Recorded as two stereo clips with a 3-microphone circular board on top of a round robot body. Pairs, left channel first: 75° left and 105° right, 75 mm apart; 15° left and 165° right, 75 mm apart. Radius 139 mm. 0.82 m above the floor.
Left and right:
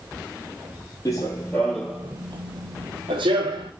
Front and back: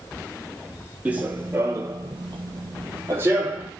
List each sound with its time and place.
1.1 s running footsteps: 125° left, 1.0 m; by 3.7 s 95° right, 1.3 m